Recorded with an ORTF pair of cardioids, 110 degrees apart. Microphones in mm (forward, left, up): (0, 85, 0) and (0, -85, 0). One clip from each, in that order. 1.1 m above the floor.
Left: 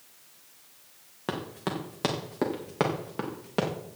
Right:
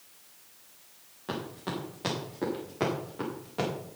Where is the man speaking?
No man speaking in this recording.